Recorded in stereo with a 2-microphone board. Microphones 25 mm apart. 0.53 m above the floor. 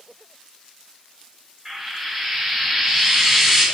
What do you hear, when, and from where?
1.6 s frying: 15° right (ahead or behind), 4.5 m